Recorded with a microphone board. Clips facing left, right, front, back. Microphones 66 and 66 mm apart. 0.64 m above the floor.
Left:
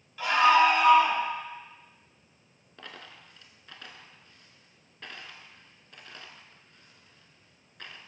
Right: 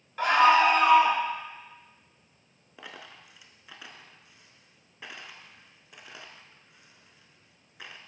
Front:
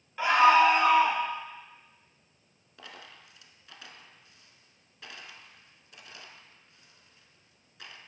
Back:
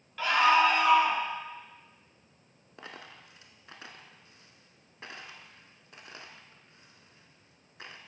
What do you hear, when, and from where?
0.2 s a scream: 70° right, 1.2 m; by 1.2 s 50° right, 1.6 m
2.8 s a dropped coin: 160° right, 0.6 m